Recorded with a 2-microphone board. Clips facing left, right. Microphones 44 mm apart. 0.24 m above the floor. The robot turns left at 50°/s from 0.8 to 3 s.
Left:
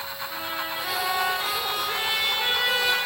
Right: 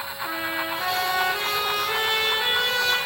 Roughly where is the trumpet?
Right.